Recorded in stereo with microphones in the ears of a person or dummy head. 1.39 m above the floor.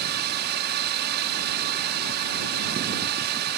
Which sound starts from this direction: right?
A drone, at 0.0 s.